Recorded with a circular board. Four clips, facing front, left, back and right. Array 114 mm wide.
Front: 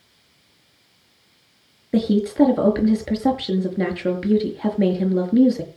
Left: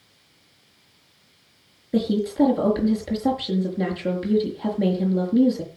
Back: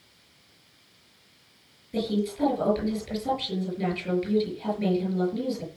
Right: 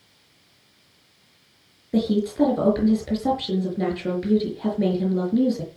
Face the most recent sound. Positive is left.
turn(degrees=0)